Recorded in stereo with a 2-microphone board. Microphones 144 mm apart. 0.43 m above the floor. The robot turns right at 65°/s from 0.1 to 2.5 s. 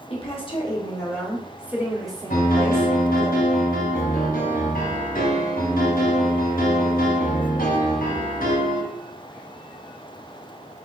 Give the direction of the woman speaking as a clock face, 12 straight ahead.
9 o'clock.